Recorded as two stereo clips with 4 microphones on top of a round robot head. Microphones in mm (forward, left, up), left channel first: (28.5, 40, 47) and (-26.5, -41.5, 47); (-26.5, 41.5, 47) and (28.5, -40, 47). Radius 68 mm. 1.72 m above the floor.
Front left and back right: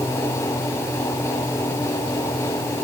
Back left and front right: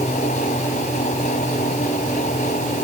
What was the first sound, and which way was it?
Only background noise.